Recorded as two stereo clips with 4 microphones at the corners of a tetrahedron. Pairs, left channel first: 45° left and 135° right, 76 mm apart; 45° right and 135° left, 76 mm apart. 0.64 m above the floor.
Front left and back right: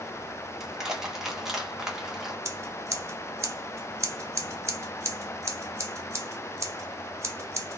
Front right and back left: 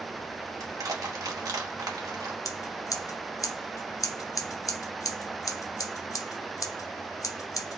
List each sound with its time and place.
0.6 s crushing: 145° left, 1.7 m
2.5 s scissors: 85° right, 1.2 m